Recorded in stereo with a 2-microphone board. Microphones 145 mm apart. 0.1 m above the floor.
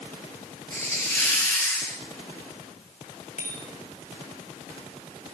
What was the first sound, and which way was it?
A hiss, 15° left (ahead or behind).